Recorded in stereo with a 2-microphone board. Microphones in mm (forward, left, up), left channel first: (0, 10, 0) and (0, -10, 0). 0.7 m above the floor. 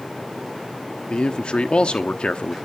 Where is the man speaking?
60° left (ahead or behind), 0.9 m.